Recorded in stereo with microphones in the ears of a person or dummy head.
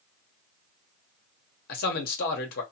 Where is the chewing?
I don't hear chewing.